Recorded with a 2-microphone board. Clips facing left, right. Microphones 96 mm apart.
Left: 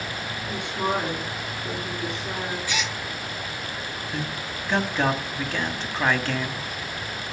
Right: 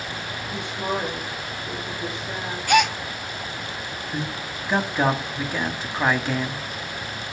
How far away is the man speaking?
About 1.9 m.